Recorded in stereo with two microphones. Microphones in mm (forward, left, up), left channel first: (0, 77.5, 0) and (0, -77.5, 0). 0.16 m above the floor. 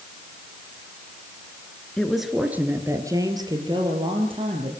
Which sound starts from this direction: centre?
A woman speaking, at 2.0 s.